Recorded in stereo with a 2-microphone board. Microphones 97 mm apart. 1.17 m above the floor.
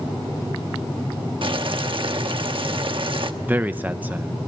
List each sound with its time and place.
1.4 s boiling: 60° right (ahead or behind), 1.1 m
3.4 s a man speaking: 15° right (ahead or behind), 0.6 m